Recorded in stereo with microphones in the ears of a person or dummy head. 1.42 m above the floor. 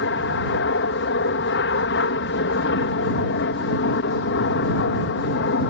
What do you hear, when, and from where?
0.0 s an aircraft: 60° left (ahead or behind)